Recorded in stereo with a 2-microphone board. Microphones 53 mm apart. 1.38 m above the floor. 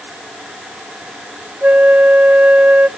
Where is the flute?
35° right (ahead or behind), 0.6 m.